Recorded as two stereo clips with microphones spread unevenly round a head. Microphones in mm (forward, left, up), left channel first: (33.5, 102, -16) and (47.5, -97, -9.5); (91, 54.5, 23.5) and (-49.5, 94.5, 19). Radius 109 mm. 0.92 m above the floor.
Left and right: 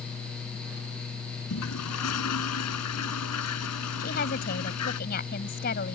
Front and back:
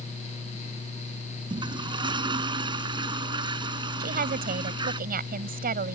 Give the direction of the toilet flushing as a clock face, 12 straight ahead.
8 o'clock.